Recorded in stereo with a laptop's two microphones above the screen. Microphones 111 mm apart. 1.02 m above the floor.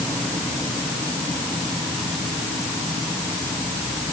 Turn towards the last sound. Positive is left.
No sound to turn to.